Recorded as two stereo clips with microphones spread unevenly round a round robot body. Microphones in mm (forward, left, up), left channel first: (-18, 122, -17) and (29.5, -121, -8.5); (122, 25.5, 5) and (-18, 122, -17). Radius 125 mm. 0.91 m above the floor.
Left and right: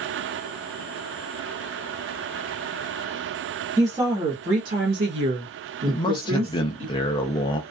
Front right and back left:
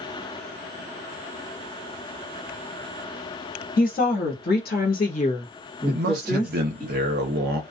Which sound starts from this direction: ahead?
A woman speaking, at 3.8 s.